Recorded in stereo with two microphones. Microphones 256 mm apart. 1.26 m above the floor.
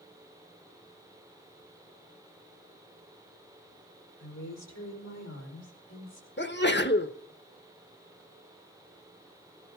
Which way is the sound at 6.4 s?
45° left (ahead or behind).